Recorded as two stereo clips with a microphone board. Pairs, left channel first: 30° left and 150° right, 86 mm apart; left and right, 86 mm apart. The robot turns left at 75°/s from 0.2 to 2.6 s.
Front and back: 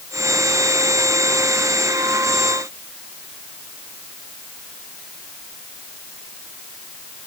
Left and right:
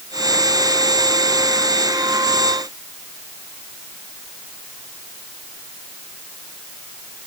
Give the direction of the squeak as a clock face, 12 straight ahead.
No squeak in this recording.